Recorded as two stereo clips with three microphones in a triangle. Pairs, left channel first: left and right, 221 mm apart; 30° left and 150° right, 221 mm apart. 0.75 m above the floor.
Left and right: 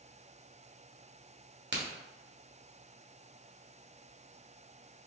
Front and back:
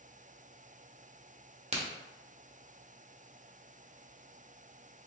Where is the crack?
95° right, 0.9 m.